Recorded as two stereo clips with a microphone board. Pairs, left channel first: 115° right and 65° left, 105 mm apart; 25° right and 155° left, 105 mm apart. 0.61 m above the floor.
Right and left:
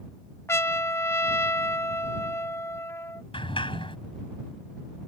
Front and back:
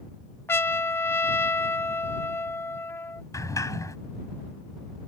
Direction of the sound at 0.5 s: 70° right.